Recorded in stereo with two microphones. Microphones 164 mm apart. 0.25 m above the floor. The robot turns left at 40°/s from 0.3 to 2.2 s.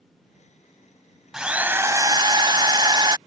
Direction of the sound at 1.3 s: 5° right.